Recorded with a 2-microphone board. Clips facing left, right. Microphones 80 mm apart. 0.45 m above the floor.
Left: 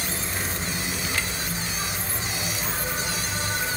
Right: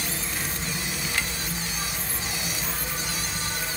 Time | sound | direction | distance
0.0 | an insect | 30° left (ahead or behind) | 1.3 m